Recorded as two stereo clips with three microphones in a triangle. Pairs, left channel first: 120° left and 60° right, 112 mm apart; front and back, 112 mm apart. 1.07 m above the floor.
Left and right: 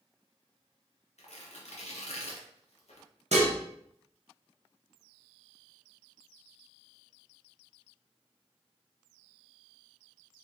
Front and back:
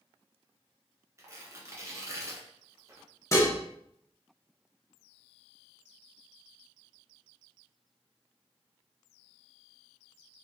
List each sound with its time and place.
1.2 s tearing paper: 120° left, 0.7 m
3.3 s dishes clattering: 65° right, 0.6 m